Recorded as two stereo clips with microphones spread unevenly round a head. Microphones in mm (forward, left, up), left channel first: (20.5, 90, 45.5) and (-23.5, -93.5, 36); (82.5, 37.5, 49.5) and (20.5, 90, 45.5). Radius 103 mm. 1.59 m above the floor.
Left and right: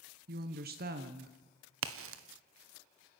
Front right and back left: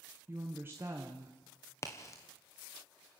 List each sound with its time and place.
0.3 s a woman speaking: 145° right, 1.1 m
1.8 s a crack: 105° right, 1.2 m